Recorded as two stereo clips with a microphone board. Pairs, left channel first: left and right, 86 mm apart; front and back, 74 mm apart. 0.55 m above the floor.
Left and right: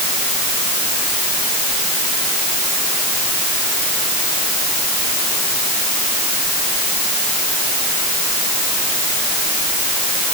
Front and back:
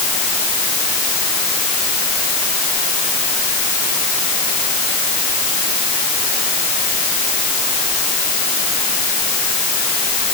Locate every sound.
Only background noise.